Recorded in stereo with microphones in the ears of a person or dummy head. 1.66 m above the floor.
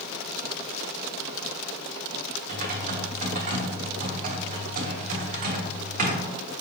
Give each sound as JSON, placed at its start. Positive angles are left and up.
{"t": 2.5, "sound": "typing on a keyboard", "side_deg": -50, "distance_m": 0.9}